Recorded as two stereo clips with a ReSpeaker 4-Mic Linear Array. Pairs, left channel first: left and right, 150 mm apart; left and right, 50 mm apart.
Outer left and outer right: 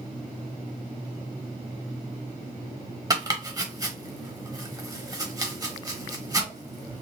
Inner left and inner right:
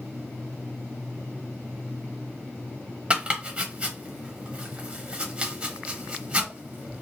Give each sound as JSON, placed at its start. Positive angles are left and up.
{"t": 3.1, "sound": "chopping", "side_deg": -25, "distance_m": 0.9}